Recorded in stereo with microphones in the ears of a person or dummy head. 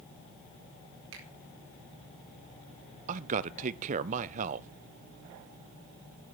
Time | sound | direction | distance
1.1 | a finger snap | 70° right (ahead or behind) | 4.5 m
3.1 | a man speaking | 40° right (ahead or behind) | 0.7 m